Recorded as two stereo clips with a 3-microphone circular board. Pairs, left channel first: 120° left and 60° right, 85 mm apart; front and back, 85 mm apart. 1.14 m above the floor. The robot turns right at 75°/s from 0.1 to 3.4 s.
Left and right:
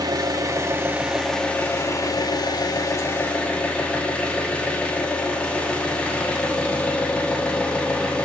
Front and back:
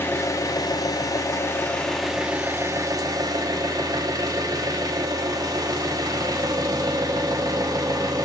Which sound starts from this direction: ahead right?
An engine running, at 0.0 s.